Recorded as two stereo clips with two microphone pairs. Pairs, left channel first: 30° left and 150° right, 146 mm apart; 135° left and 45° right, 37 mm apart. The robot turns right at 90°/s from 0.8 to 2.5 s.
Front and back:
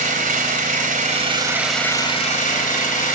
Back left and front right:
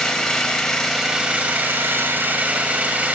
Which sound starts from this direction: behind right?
An engine running, at 0.0 s.